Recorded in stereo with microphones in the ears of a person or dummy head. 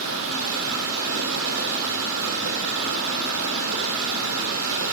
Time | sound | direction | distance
0.0 | running water | 80° right | 5.5 m